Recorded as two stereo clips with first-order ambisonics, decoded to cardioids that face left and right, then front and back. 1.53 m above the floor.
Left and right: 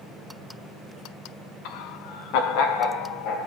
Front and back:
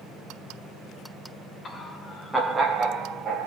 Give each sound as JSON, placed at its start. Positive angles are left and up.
{"t": 1.6, "sound": "laughter", "azimuth_deg": 65, "distance_m": 0.9}